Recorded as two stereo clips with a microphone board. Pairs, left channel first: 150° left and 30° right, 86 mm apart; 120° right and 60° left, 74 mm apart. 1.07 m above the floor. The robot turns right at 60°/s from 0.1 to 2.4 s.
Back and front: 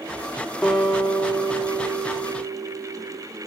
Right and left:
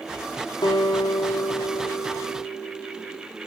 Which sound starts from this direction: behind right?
A guitar, at 0.6 s.